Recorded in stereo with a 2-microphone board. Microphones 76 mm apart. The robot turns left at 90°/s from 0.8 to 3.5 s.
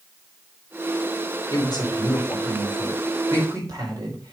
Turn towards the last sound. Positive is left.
turn(degrees=-50)  # may be behind; listen again after turning